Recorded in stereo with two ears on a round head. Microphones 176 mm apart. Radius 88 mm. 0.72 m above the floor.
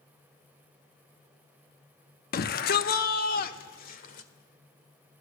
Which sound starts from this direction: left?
A shout, at 2.3 s.